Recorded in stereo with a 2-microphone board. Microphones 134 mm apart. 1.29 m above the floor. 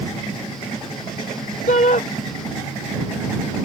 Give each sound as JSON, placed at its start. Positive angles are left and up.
{"t": 1.7, "sound": "a shout", "side_deg": 70}